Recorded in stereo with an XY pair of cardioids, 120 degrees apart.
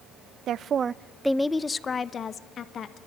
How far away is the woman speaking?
About 0.6 m.